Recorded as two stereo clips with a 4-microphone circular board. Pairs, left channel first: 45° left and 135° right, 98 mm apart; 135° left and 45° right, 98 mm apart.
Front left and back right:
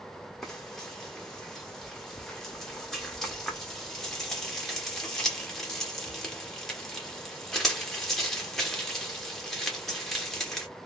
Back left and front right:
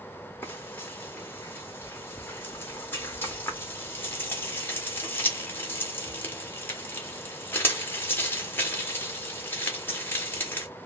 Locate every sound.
0.4 s frying: 120° left, 1.2 m